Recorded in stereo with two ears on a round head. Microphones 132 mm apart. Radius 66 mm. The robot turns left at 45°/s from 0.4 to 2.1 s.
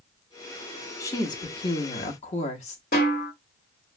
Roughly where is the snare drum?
Left.